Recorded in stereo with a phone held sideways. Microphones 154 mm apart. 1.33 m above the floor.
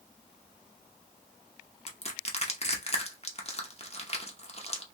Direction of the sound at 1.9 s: 45° left (ahead or behind).